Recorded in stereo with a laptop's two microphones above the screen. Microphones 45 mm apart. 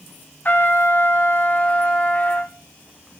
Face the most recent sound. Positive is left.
turn(degrees=45)  # may be behind; listen again after turning